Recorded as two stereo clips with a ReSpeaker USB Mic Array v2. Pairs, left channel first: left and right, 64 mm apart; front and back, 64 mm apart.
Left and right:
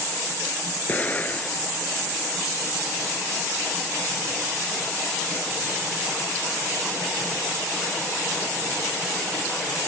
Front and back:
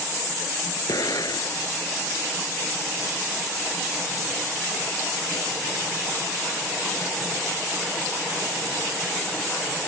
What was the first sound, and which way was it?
An explosion, 25° left.